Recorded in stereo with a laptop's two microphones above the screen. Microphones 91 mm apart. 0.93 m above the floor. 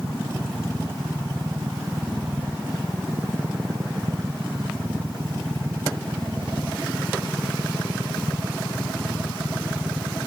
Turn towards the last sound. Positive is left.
turn(degrees=-25)  # may be behind; listen again after turning